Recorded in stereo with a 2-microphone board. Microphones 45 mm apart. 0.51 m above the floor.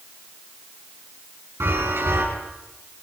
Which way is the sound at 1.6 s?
70° right (ahead or behind).